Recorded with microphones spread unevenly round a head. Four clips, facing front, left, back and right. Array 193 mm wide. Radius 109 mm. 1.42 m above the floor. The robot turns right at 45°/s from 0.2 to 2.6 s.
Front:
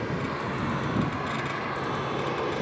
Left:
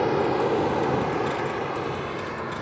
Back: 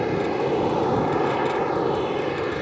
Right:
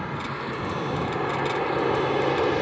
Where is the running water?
135° left; by 2.6 s 120° right.